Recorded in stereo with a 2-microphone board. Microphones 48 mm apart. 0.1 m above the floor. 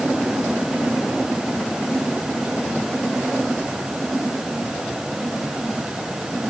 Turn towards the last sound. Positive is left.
No sound to turn to.